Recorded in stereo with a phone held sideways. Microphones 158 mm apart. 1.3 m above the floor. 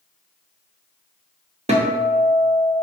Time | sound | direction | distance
1.7 | a guitar | 45° right (ahead or behind) | 0.7 m